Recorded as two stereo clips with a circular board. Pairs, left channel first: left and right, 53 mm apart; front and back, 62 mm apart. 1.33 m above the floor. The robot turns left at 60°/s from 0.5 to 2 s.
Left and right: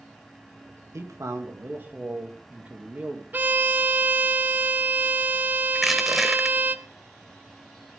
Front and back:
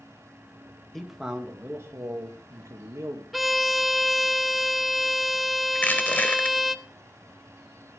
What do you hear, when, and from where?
0.9 s a man speaking: 80° right, 2 m; by 3.2 s 145° right, 2 m
3.3 s a violin: 90° right, 0.7 m
5.8 s crushing: 5° right, 1.2 m